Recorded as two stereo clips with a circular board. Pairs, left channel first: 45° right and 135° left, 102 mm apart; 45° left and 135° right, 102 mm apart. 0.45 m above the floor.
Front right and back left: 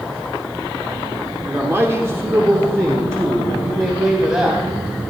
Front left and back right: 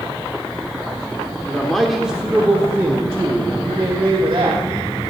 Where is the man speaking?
110° left, 1.4 m; by 4.6 s 165° right, 2.5 m.